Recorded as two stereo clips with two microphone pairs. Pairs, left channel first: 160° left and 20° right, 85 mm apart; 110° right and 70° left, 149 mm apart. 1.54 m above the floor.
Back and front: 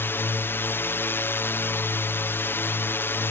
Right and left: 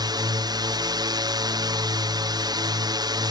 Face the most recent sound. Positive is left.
turn(degrees=110)